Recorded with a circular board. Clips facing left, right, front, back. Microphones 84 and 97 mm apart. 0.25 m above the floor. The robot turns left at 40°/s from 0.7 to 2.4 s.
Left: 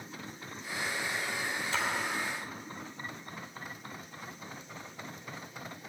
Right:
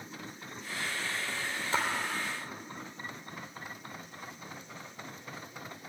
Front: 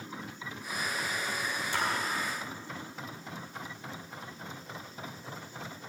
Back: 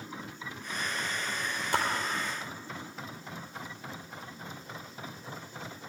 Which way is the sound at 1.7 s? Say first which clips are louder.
Right 3 dB, back 4 dB; 145° right.